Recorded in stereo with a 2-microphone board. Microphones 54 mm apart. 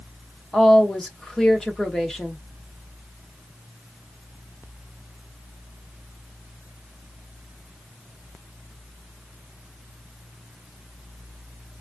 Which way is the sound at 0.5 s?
10° left (ahead or behind).